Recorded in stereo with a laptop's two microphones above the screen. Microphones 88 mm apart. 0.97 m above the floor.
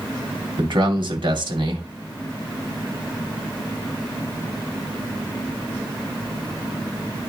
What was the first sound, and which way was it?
A man speaking, 65° right (ahead or behind).